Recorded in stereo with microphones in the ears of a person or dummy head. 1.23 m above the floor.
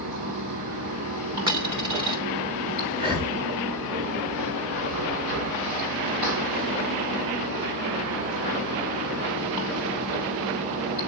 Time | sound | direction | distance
0.0 | running water | 45° right (ahead or behind) | 9.5 m
1.5 | a dropped coin | 25° right (ahead or behind) | 1.7 m
3.0 | breathing | 25° right (ahead or behind) | 1.9 m